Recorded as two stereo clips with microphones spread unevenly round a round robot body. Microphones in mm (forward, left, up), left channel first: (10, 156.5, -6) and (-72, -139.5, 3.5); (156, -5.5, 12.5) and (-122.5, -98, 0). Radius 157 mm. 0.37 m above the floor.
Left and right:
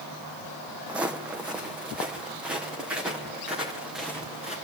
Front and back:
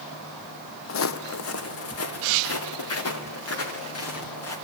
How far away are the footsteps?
About 0.8 m.